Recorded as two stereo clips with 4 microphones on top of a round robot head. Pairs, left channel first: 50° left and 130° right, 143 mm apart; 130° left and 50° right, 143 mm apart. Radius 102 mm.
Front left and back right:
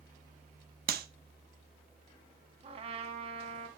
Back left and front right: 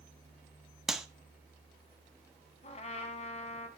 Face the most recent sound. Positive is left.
turn(degrees=180)